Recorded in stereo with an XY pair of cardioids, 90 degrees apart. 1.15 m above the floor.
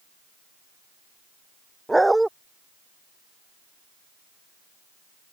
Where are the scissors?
I don't hear scissors.